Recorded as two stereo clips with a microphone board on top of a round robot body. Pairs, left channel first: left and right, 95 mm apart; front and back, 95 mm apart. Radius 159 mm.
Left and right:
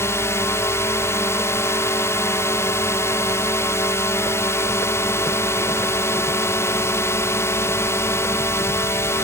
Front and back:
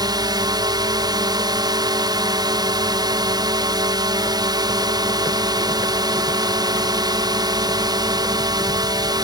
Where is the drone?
145° left.